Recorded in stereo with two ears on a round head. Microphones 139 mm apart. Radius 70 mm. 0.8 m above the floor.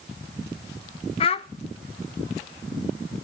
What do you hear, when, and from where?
1.2 s a child speaking: 40° left (ahead or behind), 0.6 m